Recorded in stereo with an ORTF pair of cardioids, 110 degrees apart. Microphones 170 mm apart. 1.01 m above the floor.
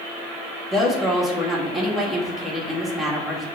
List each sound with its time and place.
0.7 s a woman speaking: straight ahead, 1.3 m